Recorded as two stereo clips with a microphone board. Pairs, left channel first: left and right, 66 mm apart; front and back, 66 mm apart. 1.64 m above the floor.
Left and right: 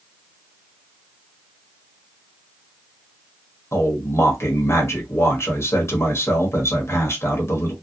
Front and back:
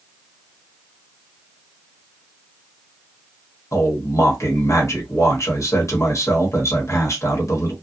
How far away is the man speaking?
About 0.9 m.